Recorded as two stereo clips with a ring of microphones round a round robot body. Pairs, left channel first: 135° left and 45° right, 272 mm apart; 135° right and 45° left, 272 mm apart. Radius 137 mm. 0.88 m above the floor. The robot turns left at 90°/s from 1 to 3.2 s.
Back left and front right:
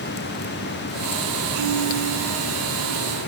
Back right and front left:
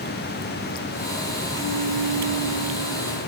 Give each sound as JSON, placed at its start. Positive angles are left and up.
{"t": 1.6, "sound": "a piano", "azimuth_deg": -65, "distance_m": 7.5}